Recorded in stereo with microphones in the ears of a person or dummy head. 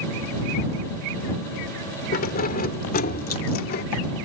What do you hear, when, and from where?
2.1 s keys jangling: 45° left (ahead or behind); by 3.8 s 50° left (ahead or behind)